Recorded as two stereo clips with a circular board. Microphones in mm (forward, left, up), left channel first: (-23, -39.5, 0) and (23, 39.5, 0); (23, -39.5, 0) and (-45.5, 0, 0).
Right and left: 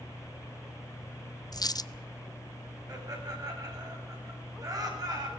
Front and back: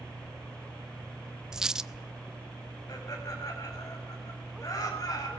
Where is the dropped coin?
130° right, 0.5 m.